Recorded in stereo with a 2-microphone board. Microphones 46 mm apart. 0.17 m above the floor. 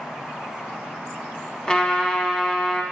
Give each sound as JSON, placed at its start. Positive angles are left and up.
{"t": 1.7, "sound": "a trumpet", "side_deg": 20, "distance_m": 0.8}